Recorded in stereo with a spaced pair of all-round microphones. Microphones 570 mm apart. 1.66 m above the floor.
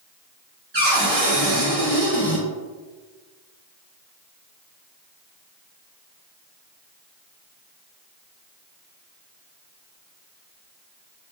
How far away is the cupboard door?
About 1.3 m.